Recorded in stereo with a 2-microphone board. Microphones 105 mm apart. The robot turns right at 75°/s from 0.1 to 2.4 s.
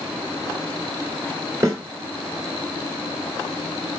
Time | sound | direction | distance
1.6 | a snare drum | 30° right (ahead or behind) | 1.8 m